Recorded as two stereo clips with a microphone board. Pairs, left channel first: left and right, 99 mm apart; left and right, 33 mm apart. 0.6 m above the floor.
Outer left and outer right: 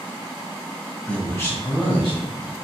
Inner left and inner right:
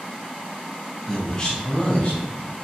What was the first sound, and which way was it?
A man speaking, 15° left (ahead or behind).